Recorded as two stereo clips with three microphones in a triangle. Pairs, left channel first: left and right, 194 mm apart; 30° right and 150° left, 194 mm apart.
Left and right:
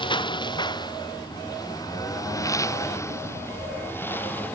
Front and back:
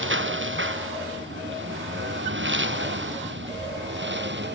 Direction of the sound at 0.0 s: 155° left.